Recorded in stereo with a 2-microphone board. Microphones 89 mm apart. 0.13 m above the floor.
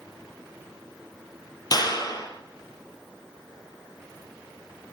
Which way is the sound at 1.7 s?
50° left (ahead or behind).